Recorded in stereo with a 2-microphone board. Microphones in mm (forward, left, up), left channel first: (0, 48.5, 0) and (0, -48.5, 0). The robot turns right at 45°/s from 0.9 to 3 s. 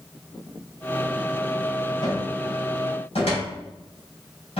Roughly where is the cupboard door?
Left.